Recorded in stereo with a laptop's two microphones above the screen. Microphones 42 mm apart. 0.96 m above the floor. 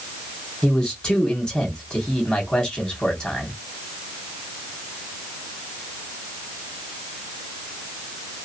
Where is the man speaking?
20° left (ahead or behind), 2 m.